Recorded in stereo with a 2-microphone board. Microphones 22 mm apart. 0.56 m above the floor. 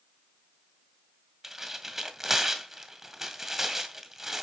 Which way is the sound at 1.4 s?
20° right (ahead or behind).